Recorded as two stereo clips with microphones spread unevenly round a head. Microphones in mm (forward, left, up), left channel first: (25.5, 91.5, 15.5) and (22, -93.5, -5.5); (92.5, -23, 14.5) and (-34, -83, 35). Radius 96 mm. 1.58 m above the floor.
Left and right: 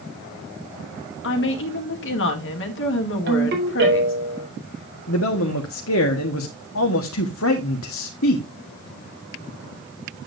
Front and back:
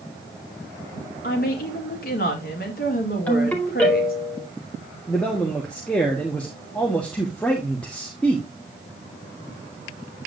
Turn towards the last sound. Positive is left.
turn(degrees=110)